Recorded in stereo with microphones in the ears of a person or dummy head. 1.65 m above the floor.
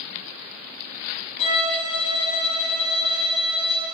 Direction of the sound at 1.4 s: 40° left (ahead or behind).